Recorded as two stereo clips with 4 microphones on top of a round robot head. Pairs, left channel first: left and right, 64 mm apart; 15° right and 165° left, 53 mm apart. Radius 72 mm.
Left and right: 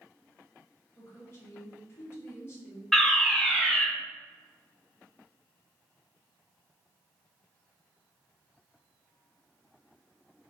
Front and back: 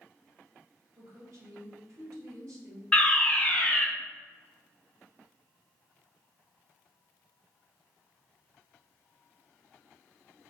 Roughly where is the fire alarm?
Ahead.